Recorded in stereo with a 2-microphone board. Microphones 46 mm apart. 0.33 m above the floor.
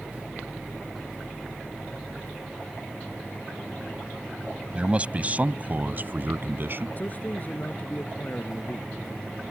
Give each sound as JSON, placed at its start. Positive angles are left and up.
{"t": 4.8, "sound": "a man speaking", "side_deg": -25}
{"t": 7.0, "sound": "a man speaking", "side_deg": 35}